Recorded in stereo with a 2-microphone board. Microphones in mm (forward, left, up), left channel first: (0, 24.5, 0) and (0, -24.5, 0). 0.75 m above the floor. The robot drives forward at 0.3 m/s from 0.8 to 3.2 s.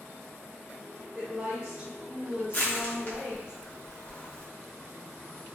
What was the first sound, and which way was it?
A woman speaking, 20° right (ahead or behind).